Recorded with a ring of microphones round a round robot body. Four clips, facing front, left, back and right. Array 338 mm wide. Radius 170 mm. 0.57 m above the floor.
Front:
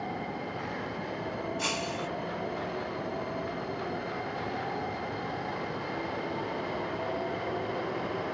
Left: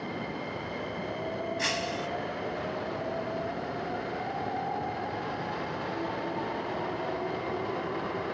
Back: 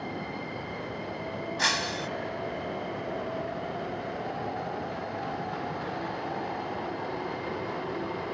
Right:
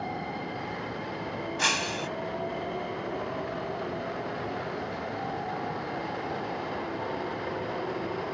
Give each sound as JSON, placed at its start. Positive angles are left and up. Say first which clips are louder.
{"t": 1.6, "sound": "breaking glass", "louder": "right 1 dB, back 2 dB", "azimuth_deg": -145}